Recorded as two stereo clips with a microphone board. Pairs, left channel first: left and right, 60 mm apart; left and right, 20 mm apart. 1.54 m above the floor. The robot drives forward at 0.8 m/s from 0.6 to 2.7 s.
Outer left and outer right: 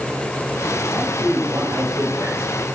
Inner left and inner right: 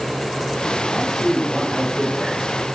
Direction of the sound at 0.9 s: 20° right (ahead or behind).